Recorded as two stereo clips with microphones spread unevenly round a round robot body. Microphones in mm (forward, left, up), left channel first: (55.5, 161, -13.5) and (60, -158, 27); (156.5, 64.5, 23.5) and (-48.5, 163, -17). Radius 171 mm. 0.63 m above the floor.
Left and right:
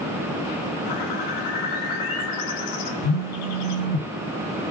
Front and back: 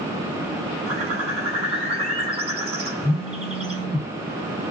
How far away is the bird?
About 3.5 m.